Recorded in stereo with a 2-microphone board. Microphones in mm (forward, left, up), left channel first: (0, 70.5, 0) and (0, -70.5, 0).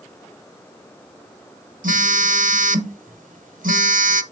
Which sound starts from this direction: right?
A phone buzzing, at 1.8 s.